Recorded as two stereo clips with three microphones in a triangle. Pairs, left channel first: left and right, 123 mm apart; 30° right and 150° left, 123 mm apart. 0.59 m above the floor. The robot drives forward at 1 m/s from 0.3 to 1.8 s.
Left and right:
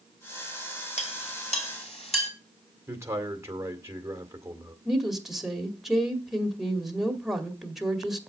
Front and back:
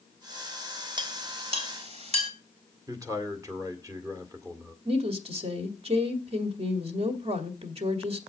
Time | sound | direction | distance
1.0 | a clink | 100° left | 2 m
2.9 | a man speaking | 155° right | 2.0 m
4.8 | a woman speaking | straight behind | 2 m